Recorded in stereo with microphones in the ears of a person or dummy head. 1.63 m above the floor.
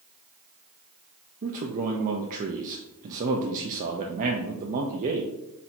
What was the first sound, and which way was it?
A man speaking, 40° right (ahead or behind).